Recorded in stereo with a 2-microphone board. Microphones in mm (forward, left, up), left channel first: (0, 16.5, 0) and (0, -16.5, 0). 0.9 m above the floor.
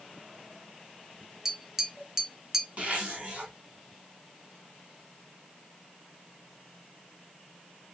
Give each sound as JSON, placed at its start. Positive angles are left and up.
{"t": 1.4, "sound": "tapping", "side_deg": -15, "distance_m": 0.5}
{"t": 2.8, "sound": "a zipper", "side_deg": -45, "distance_m": 1.6}